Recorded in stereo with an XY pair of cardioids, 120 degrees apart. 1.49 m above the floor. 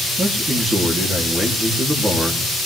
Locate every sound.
0.2 s a man speaking: 20° right, 2.5 m